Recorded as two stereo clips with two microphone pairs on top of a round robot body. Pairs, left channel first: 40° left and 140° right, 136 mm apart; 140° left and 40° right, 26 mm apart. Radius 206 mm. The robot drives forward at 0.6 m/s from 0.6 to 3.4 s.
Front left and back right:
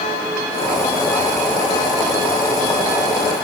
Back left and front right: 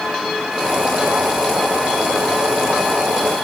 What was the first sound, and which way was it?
Only background noise.